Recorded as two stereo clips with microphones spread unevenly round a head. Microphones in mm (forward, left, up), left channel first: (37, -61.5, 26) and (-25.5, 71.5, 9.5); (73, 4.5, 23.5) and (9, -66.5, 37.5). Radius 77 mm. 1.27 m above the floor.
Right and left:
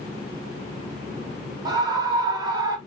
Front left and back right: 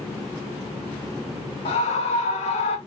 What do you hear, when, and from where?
1.6 s a scream: 55° left, 1.6 m